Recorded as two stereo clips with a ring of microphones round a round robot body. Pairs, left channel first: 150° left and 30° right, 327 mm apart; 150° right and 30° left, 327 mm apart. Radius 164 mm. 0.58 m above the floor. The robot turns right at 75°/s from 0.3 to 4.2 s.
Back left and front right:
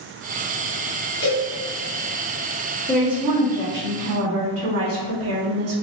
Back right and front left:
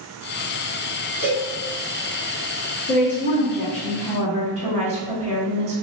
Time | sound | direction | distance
1.2 | a cowbell | 175° left | 1.3 m
2.9 | a woman speaking | 130° right | 0.8 m